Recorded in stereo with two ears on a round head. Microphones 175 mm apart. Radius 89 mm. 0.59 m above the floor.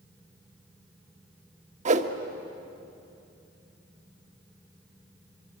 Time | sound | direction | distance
1.9 | a whoosh | 40° right (ahead or behind) | 1.3 m